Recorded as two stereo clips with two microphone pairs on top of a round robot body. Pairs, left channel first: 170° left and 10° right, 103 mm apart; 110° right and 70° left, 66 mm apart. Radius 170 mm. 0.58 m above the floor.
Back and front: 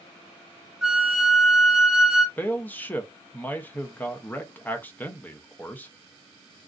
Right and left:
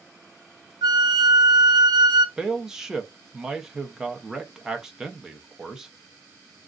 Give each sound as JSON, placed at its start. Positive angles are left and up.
{"t": 0.8, "sound": "a flute", "azimuth_deg": 75, "distance_m": 0.5}
{"t": 2.4, "sound": "a man speaking", "azimuth_deg": 145, "distance_m": 0.8}